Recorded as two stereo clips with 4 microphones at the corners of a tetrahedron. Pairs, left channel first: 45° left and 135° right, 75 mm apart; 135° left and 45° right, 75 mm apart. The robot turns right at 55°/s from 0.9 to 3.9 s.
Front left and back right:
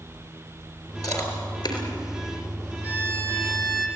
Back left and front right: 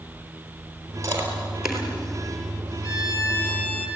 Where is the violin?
160° left, 3 m; by 3.9 s 145° right, 3 m.